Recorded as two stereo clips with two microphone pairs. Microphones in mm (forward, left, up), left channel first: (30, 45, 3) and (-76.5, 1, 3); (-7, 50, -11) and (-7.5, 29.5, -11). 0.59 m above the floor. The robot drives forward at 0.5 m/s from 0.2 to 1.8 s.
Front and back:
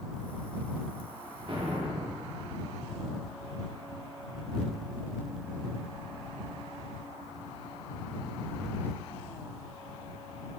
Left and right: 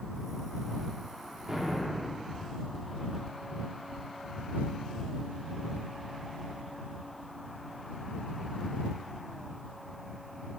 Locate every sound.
1.5 s an explosion: 145° right, 0.7 m; by 2.4 s 155° right, 0.8 m